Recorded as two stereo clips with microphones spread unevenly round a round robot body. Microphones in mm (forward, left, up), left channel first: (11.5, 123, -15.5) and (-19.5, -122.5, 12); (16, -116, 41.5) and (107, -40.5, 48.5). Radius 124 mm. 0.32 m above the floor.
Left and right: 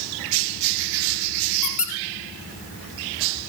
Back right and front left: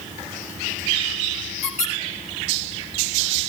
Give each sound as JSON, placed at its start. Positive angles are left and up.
{"t": 1.6, "sound": "a squeak", "azimuth_deg": 175, "distance_m": 2.5}